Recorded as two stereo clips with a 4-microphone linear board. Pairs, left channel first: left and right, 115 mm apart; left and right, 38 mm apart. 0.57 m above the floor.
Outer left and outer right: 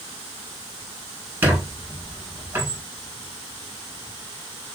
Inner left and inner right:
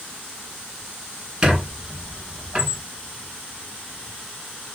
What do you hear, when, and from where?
1.4 s a squeak: 20° right (ahead or behind), 1.0 m